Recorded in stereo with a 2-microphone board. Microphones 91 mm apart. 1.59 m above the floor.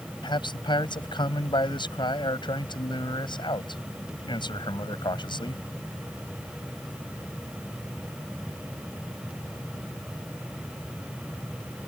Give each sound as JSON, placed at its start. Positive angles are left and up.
{"t": 0.2, "sound": "a man speaking", "side_deg": 55}